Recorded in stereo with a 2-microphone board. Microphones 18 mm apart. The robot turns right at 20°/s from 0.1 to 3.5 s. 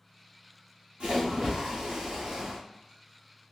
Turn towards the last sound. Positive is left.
turn(degrees=-50)